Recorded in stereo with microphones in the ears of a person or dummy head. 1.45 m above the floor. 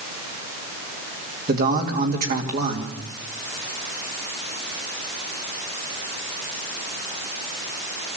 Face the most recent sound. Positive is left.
turn(degrees=-45)  # may be behind; listen again after turning